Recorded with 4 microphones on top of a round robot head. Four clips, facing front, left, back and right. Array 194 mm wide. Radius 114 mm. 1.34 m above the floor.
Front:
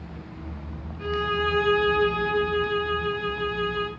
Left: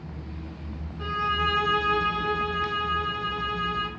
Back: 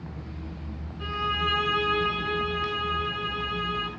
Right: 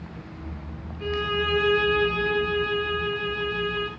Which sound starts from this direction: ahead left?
A violin, at 1.0 s.